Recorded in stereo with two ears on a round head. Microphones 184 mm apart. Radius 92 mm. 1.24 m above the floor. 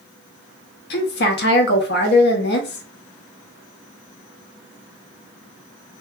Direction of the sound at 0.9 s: 55° left (ahead or behind).